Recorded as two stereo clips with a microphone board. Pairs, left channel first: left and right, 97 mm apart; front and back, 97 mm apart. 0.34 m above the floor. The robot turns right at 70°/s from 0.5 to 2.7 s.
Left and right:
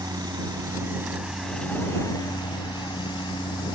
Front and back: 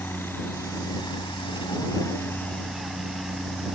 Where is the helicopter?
60° right; by 3.8 s 90° left.